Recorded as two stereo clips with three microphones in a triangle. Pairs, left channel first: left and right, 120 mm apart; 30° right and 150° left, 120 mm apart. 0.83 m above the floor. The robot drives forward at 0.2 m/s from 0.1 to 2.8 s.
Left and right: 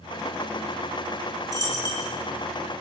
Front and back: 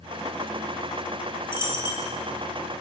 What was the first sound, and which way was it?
A dropped coin, 45° right.